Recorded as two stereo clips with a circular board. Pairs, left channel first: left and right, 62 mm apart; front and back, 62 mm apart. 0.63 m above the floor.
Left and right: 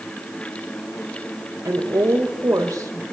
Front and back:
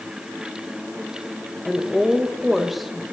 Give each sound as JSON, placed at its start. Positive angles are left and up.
{"t": 1.6, "sound": "a woman speaking", "azimuth_deg": -95, "distance_m": 3.0}